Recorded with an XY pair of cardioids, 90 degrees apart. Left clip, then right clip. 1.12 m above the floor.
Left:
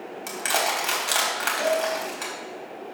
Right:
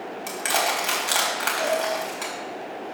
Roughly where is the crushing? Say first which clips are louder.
Right 1 dB; ahead.